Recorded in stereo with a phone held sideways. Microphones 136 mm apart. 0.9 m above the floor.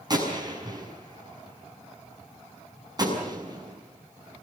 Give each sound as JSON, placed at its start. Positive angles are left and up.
{"t": 0.1, "sound": "a gunshot", "side_deg": -30, "distance_m": 6.5}